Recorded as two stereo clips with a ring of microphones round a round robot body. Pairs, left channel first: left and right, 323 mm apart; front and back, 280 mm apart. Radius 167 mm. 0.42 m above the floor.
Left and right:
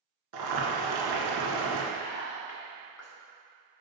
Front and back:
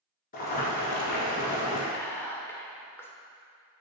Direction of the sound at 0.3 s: 65° right.